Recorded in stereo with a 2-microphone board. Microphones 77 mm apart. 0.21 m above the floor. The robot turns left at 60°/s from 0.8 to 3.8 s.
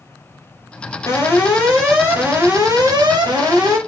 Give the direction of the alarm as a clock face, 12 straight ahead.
10 o'clock.